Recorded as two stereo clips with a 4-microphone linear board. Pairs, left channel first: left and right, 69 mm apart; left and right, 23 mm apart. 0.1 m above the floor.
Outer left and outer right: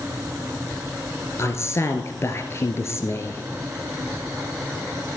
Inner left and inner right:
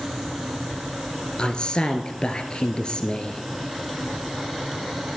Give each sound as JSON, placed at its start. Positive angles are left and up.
{"t": 1.4, "sound": "a man speaking", "side_deg": 45, "distance_m": 1.5}